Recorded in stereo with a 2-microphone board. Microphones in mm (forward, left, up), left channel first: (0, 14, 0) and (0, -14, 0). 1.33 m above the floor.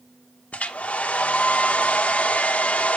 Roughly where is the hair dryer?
Left.